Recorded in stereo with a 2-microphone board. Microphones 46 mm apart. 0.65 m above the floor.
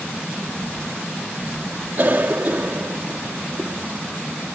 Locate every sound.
2.0 s a cough: 45° right (ahead or behind)